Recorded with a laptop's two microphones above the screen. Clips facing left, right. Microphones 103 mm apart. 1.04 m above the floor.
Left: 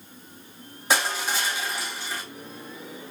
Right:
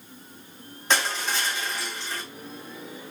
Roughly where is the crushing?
Centre.